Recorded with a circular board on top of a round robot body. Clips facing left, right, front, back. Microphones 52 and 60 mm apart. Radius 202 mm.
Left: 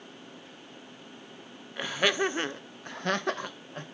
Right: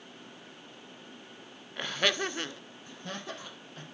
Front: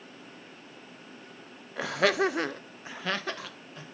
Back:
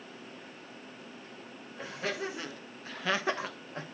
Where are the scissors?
I don't hear scissors.